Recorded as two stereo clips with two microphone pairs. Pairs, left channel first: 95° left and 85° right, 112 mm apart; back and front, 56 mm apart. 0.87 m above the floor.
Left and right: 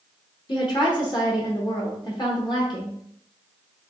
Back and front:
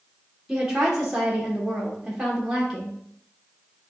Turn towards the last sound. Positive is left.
turn(degrees=75)